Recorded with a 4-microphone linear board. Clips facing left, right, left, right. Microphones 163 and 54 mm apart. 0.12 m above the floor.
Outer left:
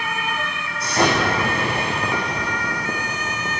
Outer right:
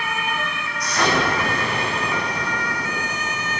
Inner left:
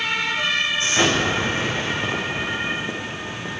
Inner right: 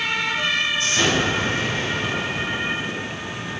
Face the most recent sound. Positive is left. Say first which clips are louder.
# outer left 2 dB, inner left 2 dB
turn(degrees=25)  # may be behind; listen again after turning